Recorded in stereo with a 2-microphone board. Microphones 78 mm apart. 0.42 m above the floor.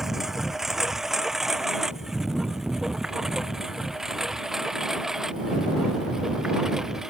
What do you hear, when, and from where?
0.0 s a lawn mower: 5° right (ahead or behind)